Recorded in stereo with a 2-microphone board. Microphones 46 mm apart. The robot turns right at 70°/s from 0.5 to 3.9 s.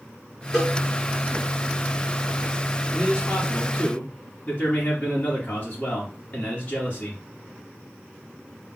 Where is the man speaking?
30° right, 2.5 m; by 7.2 s 35° left, 2.5 m.